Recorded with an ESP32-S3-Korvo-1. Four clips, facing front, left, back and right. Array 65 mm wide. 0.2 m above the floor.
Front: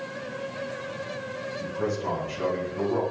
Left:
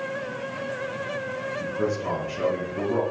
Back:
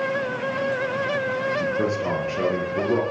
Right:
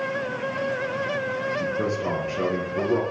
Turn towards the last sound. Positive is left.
turn(degrees=-155)